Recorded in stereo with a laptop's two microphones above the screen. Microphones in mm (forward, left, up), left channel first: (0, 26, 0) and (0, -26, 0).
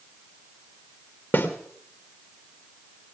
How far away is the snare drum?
About 2.5 m.